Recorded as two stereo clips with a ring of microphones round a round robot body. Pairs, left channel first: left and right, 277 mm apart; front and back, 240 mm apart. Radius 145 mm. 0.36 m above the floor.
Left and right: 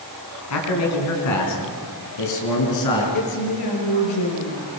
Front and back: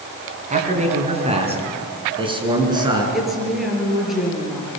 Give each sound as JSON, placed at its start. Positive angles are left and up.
{"t": 0.5, "sound": "a man speaking", "azimuth_deg": 120, "distance_m": 4.5}
{"t": 3.1, "sound": "a woman speaking", "azimuth_deg": 90, "distance_m": 6.0}